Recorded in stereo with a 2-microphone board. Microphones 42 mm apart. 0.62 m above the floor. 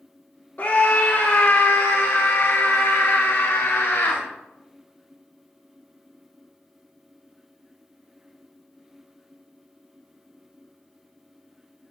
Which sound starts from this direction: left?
A scream, at 0.6 s.